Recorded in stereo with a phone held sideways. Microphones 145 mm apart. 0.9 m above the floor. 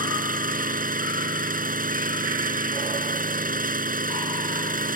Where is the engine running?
75° right (ahead or behind).